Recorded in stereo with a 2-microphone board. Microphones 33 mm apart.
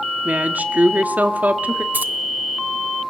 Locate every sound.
0.2 s a woman speaking: 65° right (ahead or behind), 1.7 m
1.9 s keys jangling: 80° right, 1.5 m